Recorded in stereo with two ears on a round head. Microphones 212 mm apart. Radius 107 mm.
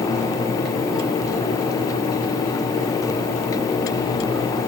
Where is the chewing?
No chewing in this recording.